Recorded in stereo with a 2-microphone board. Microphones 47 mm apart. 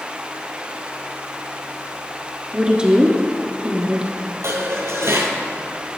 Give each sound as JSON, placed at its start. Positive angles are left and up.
{"t": 2.5, "sound": "a woman speaking", "side_deg": -20, "distance_m": 1.7}
{"t": 4.4, "sound": "dishes clattering", "side_deg": -60, "distance_m": 1.9}